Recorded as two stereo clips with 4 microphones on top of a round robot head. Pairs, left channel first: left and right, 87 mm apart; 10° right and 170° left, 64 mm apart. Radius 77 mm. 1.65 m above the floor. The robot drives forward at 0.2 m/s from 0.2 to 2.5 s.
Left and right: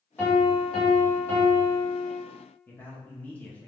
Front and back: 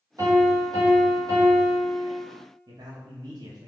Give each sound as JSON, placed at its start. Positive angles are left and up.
{"t": 0.2, "sound": "a piano", "azimuth_deg": 155, "distance_m": 1.6}
{"t": 2.7, "sound": "a man speaking", "azimuth_deg": 165, "distance_m": 0.7}